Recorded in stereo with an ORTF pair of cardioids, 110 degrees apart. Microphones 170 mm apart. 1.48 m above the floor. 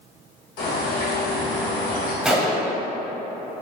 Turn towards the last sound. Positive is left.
turn(degrees=-5)